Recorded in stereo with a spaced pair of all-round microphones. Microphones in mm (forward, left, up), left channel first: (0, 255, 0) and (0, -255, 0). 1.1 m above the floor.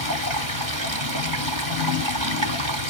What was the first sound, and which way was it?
Running water, 40° right (ahead or behind).